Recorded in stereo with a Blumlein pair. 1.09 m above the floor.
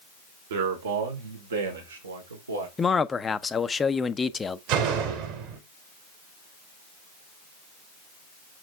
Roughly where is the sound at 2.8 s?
Ahead.